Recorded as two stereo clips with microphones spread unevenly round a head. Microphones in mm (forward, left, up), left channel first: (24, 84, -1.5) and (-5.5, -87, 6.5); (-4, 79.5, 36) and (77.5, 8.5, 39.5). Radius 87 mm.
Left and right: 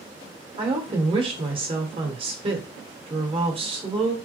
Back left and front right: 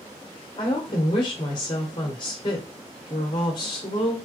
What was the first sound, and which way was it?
A woman speaking, 165° right.